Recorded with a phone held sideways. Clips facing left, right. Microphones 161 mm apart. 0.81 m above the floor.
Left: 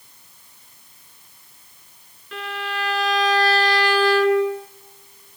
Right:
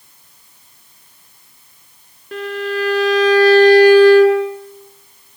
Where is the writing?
I don't hear writing.